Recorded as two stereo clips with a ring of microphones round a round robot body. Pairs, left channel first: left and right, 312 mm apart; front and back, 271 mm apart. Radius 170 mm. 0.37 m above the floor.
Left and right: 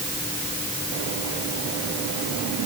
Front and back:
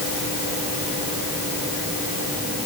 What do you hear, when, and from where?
Only background noise.